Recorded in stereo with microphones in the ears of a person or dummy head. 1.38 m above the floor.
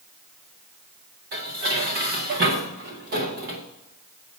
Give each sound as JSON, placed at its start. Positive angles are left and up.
{"t": 1.3, "sound": "dishes clattering", "side_deg": -40, "distance_m": 0.6}